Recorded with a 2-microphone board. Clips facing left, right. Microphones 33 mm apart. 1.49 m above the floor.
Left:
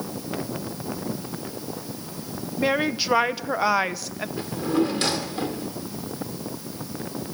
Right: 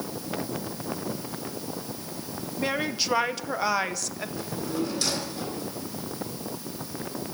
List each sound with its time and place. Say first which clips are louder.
2.6 s a woman speaking: left 5 dB; 15° left (ahead or behind), 0.7 m
4.4 s a drawer: left 7 dB; 45° left (ahead or behind), 2.0 m